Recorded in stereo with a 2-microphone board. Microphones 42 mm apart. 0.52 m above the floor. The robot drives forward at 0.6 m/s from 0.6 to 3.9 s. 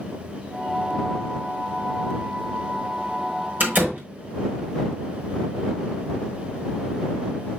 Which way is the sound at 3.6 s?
45° right (ahead or behind).